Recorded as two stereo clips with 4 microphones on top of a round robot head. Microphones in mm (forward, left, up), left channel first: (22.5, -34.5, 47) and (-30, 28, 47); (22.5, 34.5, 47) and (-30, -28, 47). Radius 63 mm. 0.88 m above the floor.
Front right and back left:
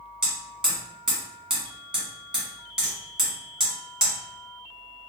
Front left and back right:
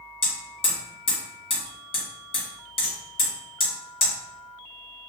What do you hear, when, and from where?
0.2 s hammering: 50° left, 1.7 m